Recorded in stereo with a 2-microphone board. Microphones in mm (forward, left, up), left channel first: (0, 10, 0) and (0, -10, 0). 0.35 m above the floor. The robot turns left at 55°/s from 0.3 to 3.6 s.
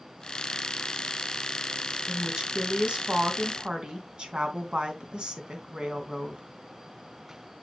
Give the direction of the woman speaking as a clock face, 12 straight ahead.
1 o'clock.